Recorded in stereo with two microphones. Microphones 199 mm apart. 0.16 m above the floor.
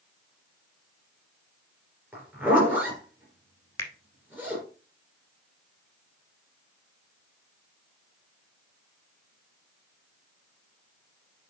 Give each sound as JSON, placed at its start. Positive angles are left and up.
{"t": 2.1, "sound": "a zipper", "side_deg": -10, "distance_m": 3.0}
{"t": 3.8, "sound": "a finger snap", "side_deg": 15, "distance_m": 1.6}